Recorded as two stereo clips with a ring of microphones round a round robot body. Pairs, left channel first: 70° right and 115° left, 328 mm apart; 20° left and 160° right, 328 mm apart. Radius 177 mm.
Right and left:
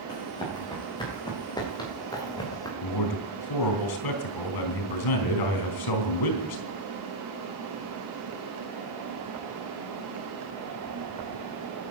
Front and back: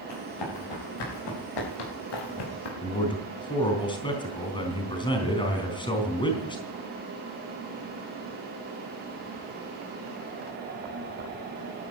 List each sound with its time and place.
0.1 s running footsteps: 10° left, 8 m
2.8 s a man speaking: 55° right, 3.5 m